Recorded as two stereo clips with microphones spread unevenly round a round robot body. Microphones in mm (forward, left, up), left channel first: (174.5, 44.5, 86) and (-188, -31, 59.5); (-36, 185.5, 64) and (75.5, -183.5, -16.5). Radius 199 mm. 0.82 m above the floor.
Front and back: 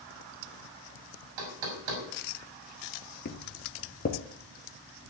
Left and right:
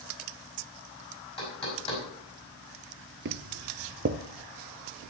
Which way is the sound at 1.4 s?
175° right.